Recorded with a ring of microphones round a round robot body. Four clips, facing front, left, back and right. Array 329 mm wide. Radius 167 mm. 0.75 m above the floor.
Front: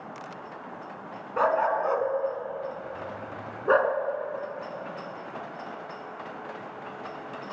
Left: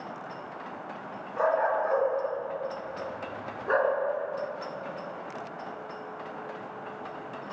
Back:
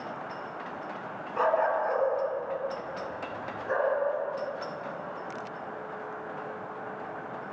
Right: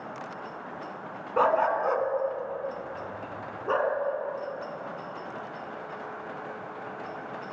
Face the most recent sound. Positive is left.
turn(degrees=-5)